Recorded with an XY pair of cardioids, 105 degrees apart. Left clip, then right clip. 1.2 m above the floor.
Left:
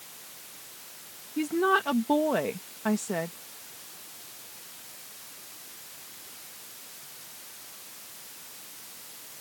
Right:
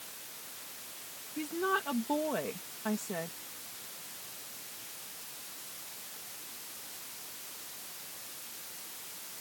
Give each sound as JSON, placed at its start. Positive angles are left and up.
{"t": 1.4, "sound": "a woman speaking", "azimuth_deg": 50}